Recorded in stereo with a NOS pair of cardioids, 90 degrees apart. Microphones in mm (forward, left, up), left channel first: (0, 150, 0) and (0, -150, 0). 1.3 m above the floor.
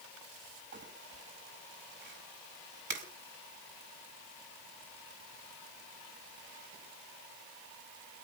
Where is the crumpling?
40° right, 7 m.